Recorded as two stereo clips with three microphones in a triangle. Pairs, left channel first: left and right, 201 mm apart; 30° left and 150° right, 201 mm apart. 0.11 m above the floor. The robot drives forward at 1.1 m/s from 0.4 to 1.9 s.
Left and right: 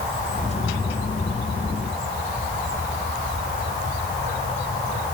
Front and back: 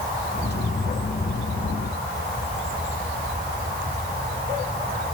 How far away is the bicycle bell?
No bicycle bell in this recording.